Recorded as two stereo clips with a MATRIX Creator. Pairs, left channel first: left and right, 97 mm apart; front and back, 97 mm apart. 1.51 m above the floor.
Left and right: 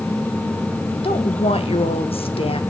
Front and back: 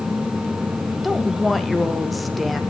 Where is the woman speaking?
90° left, 1.8 m.